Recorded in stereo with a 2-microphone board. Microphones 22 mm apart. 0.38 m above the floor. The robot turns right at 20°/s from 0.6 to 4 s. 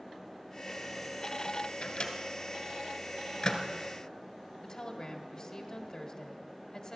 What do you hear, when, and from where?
1.8 s a microwave: 50° left (ahead or behind), 1.6 m; by 3.6 s 40° left (ahead or behind), 1.6 m
4.6 s a woman speaking: 40° left (ahead or behind), 1.7 m